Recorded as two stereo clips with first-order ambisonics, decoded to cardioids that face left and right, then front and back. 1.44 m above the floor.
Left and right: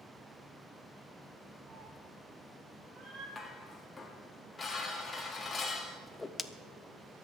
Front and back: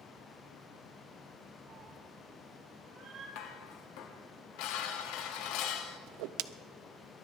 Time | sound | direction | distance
1.7 | a cat meowing | 120° right | 2 m
3.4 | dishes clattering | 15° left | 1.5 m
6.1 | a whoosh | 170° left | 0.6 m